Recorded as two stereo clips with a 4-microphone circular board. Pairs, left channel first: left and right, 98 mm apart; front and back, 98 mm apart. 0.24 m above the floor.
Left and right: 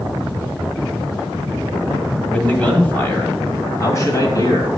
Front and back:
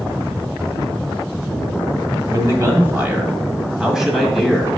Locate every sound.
2.3 s a man speaking: 160° left, 1.8 m; by 4.7 s 85° left, 2.0 m